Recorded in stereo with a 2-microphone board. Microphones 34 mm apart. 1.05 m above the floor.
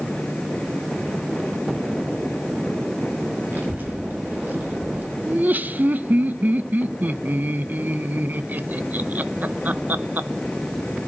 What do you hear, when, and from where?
3.5 s a child speaking: 75° right (ahead or behind), 5.5 m; by 5.2 s 85° right, 5.5 m
5.3 s laughter: 55° right (ahead or behind), 0.7 m